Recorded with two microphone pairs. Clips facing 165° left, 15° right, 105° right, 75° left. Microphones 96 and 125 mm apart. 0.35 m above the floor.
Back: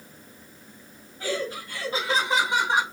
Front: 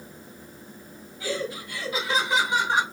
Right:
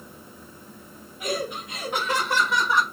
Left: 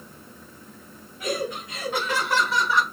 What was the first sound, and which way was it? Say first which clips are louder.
Laughter: back 1 dB, left 1 dB; 170° right.